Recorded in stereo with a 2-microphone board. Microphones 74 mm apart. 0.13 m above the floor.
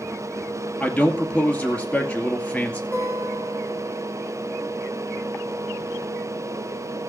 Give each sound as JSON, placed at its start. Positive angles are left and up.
{"t": 0.8, "sound": "a man speaking", "side_deg": 15, "distance_m": 2.5}
{"t": 2.9, "sound": "a guitar", "side_deg": 20, "distance_m": 5.5}